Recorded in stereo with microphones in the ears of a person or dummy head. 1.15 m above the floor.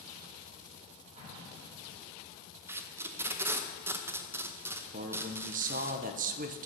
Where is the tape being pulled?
10° right (ahead or behind), 0.7 m.